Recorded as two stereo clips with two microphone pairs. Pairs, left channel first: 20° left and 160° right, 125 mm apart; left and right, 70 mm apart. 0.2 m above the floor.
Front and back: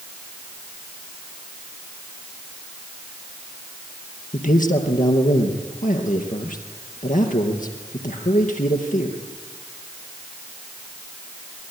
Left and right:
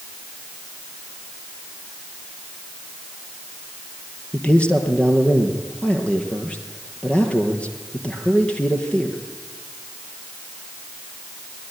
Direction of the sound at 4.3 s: 15° left.